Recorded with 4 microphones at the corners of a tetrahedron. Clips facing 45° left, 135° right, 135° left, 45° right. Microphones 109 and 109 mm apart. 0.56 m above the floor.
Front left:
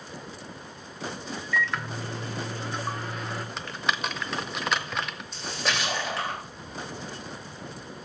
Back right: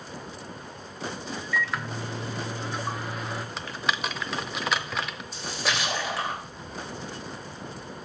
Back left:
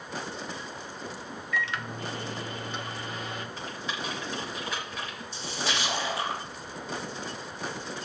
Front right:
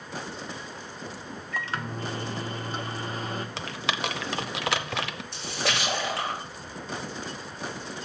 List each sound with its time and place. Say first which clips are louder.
1.5 s a microwave: front left 1 dB, even; 50° right, 0.8 m
3.6 s typing on a keyboard: even, front right 4 dB; 45° right, 0.6 m
5.3 s a splash: even, front right 2 dB; 50° right, 2.5 m